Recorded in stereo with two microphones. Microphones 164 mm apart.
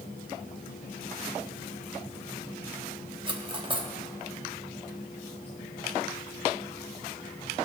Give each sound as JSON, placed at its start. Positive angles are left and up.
{"t": 3.3, "sound": "cutlery clinking", "side_deg": -30, "distance_m": 1.2}